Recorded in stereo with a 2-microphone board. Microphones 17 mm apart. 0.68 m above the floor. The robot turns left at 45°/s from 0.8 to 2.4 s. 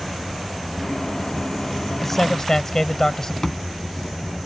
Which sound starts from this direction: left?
A thud, at 3.4 s.